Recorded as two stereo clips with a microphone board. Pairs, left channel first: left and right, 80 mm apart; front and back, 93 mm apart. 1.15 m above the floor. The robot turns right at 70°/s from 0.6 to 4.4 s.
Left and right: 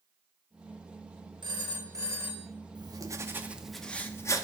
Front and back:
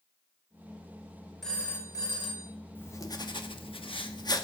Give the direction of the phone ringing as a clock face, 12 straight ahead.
3 o'clock.